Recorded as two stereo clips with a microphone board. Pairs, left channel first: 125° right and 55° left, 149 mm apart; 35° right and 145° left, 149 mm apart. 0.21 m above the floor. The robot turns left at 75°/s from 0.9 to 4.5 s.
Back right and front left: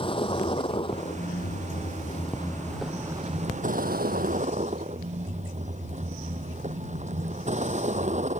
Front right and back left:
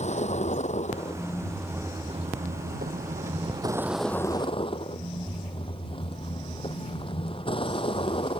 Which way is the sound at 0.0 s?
70° right.